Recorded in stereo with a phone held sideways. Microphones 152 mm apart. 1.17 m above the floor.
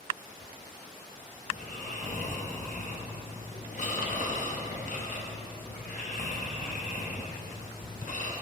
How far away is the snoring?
About 0.7 m.